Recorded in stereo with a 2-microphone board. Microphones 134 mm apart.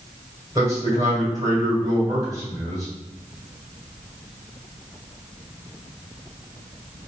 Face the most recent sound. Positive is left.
turn(degrees=-30)  # may be behind; listen again after turning